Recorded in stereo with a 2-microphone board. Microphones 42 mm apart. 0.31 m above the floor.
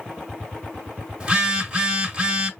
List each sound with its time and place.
1.2 s a phone buzzing: 25° right (ahead or behind), 1.4 m